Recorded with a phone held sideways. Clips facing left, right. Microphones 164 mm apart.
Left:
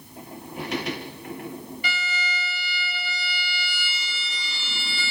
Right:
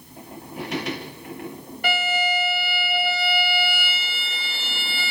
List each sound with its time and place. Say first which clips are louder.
1.8 s a violin: right 13 dB; 55° right (ahead or behind), 0.9 m